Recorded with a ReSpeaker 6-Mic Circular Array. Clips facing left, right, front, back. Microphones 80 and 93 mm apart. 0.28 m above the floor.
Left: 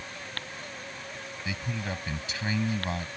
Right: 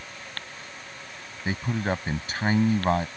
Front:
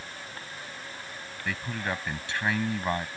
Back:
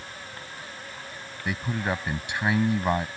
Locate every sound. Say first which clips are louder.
1.4 s a man speaking: right 8 dB, back 4 dB; 110° right